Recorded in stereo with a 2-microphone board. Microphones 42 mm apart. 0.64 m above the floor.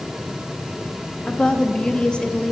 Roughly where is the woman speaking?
Left.